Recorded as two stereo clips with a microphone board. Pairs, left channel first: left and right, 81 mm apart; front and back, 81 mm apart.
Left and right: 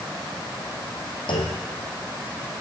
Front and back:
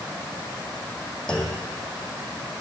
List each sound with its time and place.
1.3 s a clunk: 80° left, 2.5 m